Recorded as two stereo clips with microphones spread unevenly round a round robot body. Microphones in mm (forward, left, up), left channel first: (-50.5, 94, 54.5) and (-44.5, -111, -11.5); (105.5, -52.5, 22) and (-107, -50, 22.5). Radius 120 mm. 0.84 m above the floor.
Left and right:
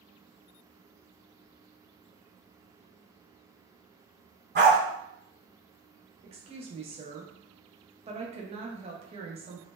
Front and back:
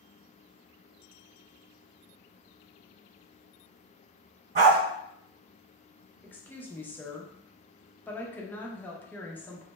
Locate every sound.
4.5 s a dog barking: 135° right, 1.4 m
6.2 s a woman speaking: 80° right, 0.6 m